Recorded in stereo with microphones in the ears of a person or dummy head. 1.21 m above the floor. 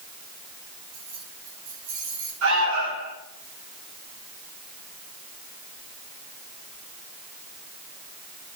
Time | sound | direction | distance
0.9 | keys jangling | 85° right | 8 m
2.4 | an alarm | 75° right (ahead or behind) | 7.5 m